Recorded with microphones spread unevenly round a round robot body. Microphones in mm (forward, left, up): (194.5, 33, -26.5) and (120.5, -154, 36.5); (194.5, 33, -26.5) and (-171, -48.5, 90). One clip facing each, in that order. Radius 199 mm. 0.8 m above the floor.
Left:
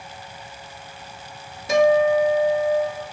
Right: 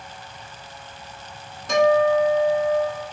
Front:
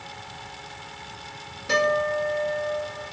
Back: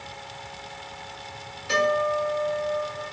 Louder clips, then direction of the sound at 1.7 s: Left 1 dB, even; 5° right.